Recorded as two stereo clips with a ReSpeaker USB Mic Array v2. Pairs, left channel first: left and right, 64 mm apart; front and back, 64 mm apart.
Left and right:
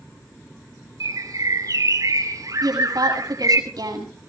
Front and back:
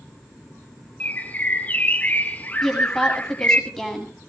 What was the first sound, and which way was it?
A bird, 65° right.